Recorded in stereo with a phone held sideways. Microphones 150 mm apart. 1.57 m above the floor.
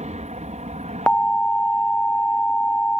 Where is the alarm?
5° left (ahead or behind).